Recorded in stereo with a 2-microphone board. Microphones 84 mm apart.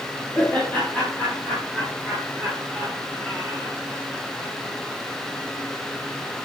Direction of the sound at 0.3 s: 25° left (ahead or behind).